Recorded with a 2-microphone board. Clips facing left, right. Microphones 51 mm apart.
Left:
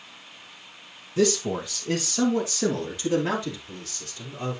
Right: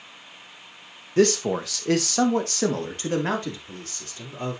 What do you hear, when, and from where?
1.2 s a man speaking: 55° right (ahead or behind), 1.6 m; by 4.6 s 35° right (ahead or behind), 5 m